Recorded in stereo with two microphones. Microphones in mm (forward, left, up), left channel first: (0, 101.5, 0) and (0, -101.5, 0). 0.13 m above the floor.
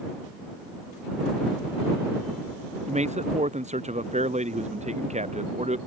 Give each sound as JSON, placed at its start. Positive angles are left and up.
{"t": 2.9, "sound": "a man speaking", "side_deg": -35}